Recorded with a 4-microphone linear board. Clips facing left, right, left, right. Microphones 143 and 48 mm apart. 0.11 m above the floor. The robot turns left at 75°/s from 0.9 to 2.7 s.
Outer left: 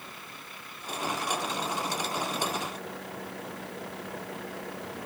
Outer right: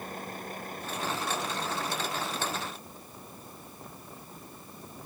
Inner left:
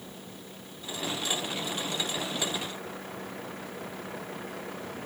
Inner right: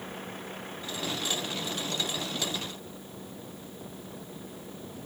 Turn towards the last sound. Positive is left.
turn(degrees=90)